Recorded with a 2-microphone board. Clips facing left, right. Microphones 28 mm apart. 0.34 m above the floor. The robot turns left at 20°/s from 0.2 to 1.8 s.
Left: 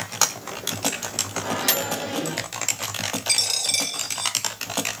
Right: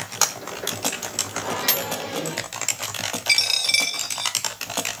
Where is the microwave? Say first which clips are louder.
Left 1 dB; 10° right (ahead or behind), 1.2 m; by 2.5 s 15° right (ahead or behind), 1.2 m.